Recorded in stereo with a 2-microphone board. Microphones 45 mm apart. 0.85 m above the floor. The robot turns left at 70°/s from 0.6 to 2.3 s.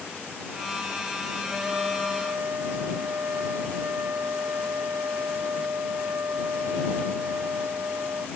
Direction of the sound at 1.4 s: 10° right.